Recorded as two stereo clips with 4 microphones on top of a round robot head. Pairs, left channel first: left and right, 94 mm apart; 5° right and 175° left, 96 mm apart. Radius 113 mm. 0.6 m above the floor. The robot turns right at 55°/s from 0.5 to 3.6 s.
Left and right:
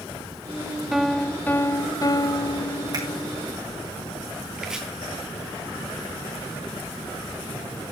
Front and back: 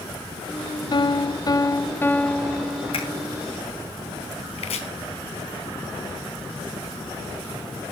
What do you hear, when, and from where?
0.9 s a piano: 5° right, 0.9 m; by 3.2 s 120° left, 0.9 m
2.9 s a finger snap: 40° right, 6.5 m; by 3.0 s 30° right, 6.5 m
4.6 s chopping: 5° right, 3 m